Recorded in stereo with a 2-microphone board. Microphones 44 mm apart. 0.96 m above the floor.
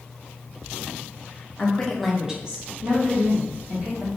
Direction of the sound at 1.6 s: 25° left (ahead or behind).